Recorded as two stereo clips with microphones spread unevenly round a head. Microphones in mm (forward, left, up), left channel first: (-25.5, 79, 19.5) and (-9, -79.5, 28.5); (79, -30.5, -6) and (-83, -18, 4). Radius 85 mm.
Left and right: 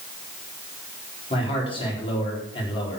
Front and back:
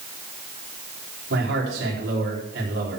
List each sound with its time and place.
1.3 s a man speaking: 150° left, 4 m